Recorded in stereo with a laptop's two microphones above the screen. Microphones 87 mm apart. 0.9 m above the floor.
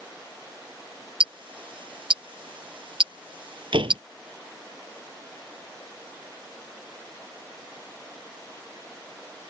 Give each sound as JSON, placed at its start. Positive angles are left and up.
{"t": 1.2, "sound": "ticking", "side_deg": -70}
{"t": 3.7, "sound": "a door slam", "side_deg": -75}